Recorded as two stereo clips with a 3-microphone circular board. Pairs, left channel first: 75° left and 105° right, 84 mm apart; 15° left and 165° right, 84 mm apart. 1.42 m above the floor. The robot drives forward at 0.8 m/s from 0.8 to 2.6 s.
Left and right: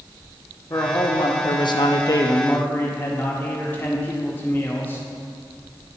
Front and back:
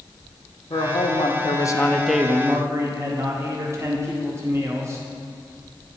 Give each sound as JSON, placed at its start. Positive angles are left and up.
{"t": 0.7, "sound": "a man speaking", "azimuth_deg": 25, "distance_m": 1.0}